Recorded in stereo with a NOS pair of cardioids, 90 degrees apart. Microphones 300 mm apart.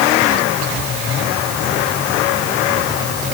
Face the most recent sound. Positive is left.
No sound to turn to.